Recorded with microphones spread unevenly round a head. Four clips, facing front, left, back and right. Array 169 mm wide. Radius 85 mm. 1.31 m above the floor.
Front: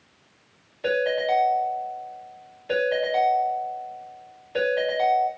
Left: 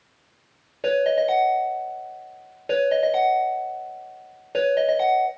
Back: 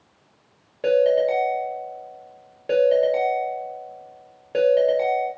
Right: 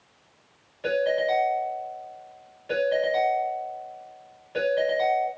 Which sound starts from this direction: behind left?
A ringtone, at 0.8 s.